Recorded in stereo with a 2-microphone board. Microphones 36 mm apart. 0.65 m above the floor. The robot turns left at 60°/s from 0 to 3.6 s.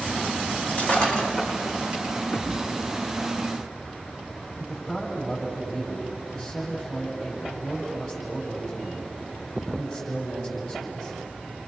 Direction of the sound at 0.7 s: 50° left (ahead or behind).